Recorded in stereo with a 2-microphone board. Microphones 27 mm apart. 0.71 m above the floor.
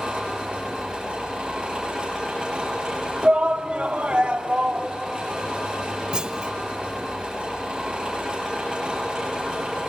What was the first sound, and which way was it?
An engine running, 30° right (ahead or behind).